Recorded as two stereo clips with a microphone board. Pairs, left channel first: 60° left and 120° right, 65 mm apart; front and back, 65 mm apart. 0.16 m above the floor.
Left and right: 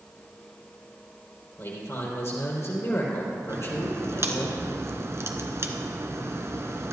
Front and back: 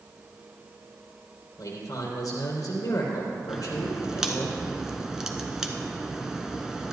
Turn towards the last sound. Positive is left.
turn(degrees=-100)